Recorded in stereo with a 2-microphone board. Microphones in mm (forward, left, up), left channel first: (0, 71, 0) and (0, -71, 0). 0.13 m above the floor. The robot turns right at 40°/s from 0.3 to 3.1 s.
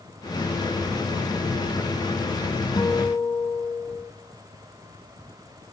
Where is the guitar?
30° left (ahead or behind), 0.8 m; by 4.1 s 15° left (ahead or behind), 0.8 m.